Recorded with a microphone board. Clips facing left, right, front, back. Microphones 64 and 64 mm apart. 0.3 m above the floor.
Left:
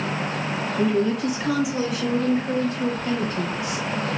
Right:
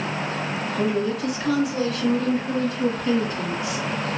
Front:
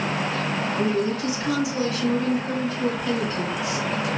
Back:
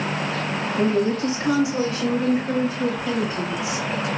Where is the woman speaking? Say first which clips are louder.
Left 2 dB, back 5 dB; 165° right, 1.3 m; by 3.8 s 110° left, 1.6 m.